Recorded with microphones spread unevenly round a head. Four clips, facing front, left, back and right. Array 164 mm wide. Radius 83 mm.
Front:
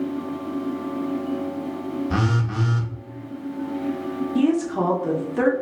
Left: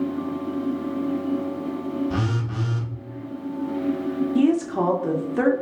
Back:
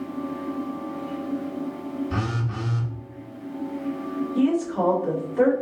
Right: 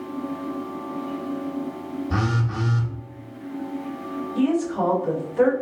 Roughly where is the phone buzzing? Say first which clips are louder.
Right 1 dB, front 4 dB; ahead.